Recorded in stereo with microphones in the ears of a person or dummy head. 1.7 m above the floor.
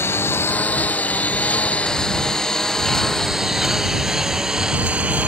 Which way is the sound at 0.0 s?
10° left (ahead or behind).